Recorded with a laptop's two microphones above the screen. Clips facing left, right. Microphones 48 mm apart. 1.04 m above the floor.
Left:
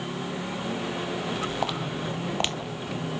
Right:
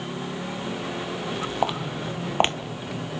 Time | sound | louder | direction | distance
1.6 | footsteps | right 3 dB | 20° right (ahead or behind) | 1.5 m